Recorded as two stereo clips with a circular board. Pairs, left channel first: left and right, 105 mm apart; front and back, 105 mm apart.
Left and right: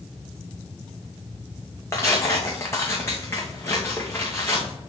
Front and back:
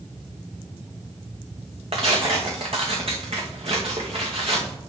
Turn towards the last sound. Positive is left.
turn(degrees=155)